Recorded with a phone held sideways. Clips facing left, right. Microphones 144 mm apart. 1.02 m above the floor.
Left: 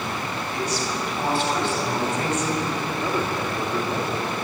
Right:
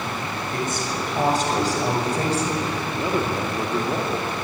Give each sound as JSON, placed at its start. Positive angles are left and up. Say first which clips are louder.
{"t": 0.5, "sound": "a woman speaking", "louder": "even", "side_deg": -50, "distance_m": 6.5}
{"t": 3.0, "sound": "a man speaking", "louder": "right 4 dB", "side_deg": -15, "distance_m": 2.0}